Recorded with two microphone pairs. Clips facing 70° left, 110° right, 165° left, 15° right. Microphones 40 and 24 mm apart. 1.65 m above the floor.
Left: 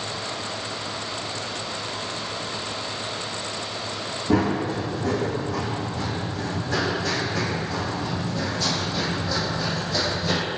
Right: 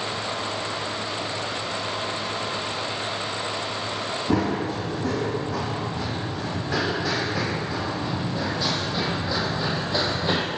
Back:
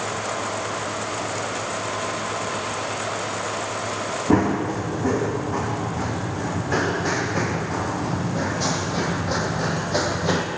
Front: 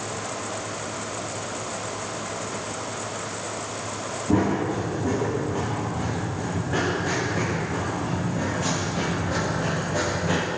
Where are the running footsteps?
165° left, 6.5 m; by 10.5 s 170° right, 4.5 m.